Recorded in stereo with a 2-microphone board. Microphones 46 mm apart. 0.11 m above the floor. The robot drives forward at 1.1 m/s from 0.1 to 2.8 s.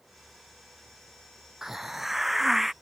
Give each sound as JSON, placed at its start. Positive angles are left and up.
{"t": 1.6, "sound": "a hiss", "side_deg": -10}